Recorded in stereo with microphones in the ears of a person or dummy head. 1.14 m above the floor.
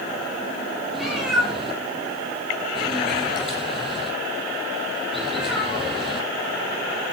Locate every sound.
0.9 s a cat meowing: centre (ahead or behind), 8 m